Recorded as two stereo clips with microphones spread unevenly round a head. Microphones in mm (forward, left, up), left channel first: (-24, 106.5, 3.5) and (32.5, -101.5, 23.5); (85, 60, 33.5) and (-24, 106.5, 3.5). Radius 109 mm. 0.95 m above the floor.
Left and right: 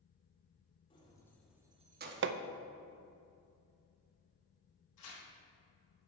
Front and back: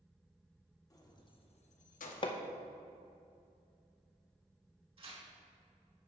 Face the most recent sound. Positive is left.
turn(degrees=115)